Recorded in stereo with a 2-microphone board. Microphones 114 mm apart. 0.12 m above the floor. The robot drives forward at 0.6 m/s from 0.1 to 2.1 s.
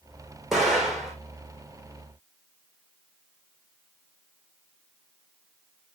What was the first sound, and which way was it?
An explosion, 5° right (ahead or behind).